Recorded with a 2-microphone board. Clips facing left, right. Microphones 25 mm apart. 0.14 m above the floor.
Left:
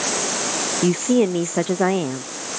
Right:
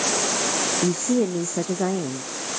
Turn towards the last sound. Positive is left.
turn(degrees=65)  # may be behind; listen again after turning